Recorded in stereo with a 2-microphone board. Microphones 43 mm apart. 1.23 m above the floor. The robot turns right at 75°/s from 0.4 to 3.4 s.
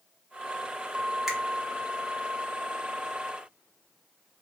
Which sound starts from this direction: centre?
A finger snap, at 1.3 s.